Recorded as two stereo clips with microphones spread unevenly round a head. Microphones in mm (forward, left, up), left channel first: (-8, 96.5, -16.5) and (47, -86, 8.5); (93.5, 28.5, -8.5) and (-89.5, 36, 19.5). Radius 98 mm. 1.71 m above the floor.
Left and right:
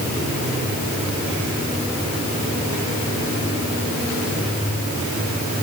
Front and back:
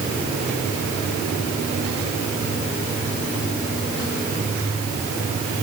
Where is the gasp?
No gasp in this recording.